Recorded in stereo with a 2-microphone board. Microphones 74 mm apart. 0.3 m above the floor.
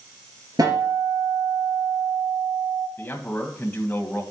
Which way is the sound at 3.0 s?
25° left (ahead or behind).